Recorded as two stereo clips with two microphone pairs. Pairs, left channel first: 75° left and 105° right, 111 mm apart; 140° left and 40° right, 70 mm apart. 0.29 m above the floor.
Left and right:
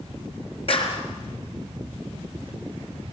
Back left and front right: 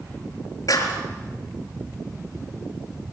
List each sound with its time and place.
0.7 s a clap: 105° left, 4.5 m